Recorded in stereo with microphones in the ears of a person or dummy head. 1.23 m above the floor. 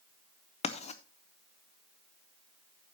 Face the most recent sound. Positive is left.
turn(degrees=35)  # may be behind; listen again after turning